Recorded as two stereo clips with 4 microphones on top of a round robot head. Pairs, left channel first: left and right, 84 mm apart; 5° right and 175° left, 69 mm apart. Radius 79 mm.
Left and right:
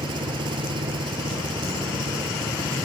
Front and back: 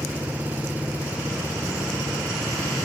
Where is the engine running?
115° right.